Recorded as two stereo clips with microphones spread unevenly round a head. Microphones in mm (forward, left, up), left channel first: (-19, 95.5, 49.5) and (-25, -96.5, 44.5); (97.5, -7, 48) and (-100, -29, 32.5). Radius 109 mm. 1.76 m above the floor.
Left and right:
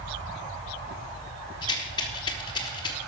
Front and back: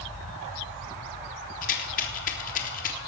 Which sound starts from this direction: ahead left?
A rattle, at 1.6 s.